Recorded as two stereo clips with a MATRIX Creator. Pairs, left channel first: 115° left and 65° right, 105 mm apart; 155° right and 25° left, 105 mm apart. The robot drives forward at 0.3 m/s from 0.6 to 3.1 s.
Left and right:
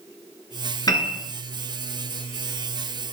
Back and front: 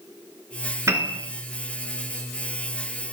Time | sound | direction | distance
0.9 | a piano | 75° left | 1.0 m